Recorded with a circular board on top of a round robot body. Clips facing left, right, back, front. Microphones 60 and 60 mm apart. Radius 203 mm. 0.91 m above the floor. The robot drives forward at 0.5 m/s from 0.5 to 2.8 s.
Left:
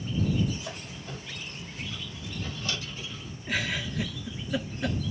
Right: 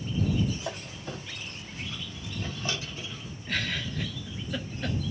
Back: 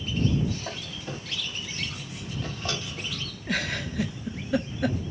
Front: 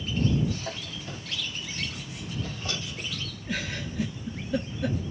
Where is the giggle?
170° left, 0.8 m.